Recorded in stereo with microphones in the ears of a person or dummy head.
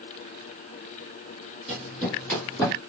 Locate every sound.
1.7 s running footsteps: 5° left (ahead or behind), 2.0 m; by 2.8 s 15° left (ahead or behind), 2.5 m